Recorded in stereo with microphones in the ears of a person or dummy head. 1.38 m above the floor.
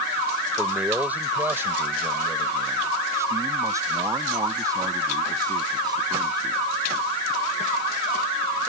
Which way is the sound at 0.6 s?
5° right (ahead or behind).